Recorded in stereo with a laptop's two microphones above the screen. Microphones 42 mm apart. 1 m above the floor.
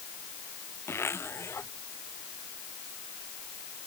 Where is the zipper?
90° left.